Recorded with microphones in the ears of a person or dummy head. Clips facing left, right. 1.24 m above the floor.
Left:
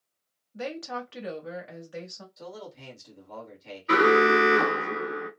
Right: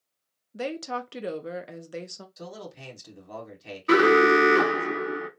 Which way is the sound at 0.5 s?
45° right (ahead or behind).